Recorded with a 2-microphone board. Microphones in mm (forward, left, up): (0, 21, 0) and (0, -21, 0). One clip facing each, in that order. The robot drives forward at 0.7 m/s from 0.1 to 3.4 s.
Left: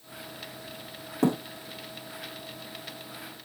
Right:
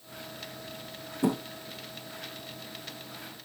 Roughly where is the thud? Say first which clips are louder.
Left 3 dB; left.